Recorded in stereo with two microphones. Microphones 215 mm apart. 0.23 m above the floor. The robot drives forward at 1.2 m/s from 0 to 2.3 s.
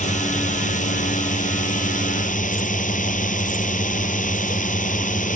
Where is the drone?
35° left (ahead or behind).